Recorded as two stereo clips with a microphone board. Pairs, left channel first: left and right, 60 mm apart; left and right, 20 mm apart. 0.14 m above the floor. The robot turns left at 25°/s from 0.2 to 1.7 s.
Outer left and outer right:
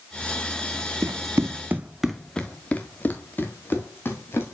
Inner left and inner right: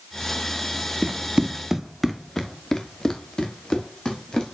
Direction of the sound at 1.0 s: 70° right (ahead or behind).